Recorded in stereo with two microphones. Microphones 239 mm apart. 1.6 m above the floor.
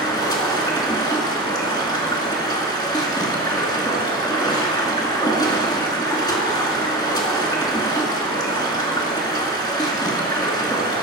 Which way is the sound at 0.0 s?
20° left (ahead or behind).